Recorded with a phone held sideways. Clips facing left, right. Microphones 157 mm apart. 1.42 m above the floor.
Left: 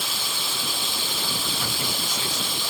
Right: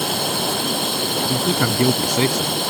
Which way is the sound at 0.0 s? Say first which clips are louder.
Right 12 dB; 55° right (ahead or behind).